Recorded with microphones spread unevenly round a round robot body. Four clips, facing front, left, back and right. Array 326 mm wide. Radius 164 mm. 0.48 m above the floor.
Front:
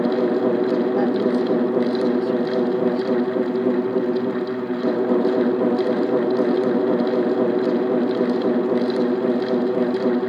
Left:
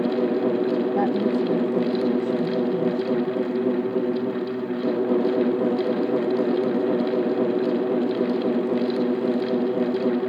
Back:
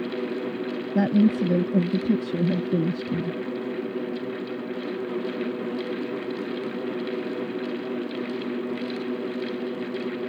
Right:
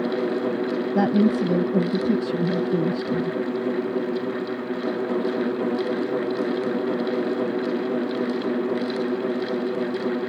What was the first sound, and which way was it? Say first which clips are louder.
A woman speaking: right 2 dB, front 2 dB; 145° right.